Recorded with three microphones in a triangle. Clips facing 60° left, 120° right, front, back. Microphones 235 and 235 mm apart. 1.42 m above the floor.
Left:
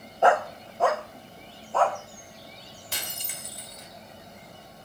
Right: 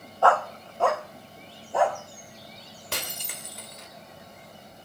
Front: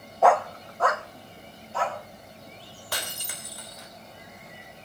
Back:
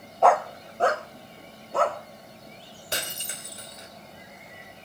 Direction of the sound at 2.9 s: 115° right.